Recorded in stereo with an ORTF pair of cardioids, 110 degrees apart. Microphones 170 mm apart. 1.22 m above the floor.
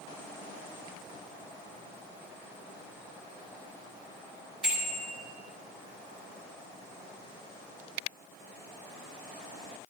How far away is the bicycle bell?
About 6 m.